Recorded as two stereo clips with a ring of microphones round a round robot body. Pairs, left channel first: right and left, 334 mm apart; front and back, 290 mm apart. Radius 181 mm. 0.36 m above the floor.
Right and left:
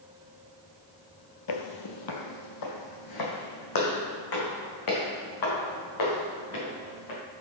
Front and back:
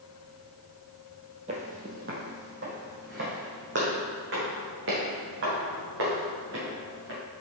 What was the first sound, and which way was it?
Footsteps, 110° right.